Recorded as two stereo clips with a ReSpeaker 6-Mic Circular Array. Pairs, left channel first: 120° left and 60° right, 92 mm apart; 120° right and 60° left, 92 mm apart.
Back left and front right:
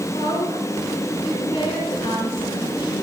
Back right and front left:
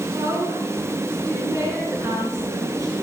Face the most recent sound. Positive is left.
turn(degrees=110)